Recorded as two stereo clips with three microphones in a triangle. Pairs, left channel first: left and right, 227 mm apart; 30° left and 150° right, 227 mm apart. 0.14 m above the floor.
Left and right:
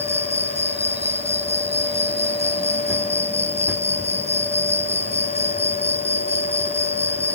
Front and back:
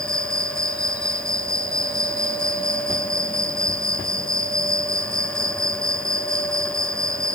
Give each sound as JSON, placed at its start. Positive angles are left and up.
{"t": 0.0, "sound": "an insect", "azimuth_deg": -145}